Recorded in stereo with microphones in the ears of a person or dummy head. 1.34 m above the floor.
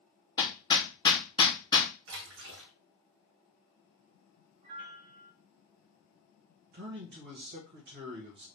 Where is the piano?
50° right (ahead or behind), 1.4 m.